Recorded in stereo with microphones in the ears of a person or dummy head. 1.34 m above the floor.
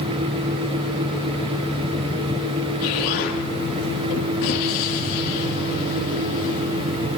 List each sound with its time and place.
2.8 s an explosion: 55° left (ahead or behind), 2.5 m